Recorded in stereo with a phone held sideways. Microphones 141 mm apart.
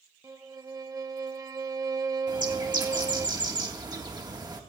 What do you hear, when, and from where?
0.2 s a violin: 25° right (ahead or behind), 0.7 m
2.3 s a bird: 30° right (ahead or behind), 1.4 m